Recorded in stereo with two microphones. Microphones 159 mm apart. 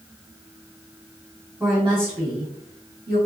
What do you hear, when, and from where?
1.6 s a woman speaking: 15° right (ahead or behind), 1.4 m; by 3.2 s 70° right (ahead or behind), 1.1 m